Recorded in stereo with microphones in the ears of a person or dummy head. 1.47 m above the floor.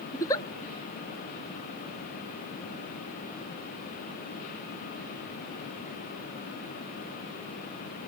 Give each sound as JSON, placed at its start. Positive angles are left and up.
{"t": 0.1, "sound": "a giggle", "side_deg": 15, "distance_m": 0.5}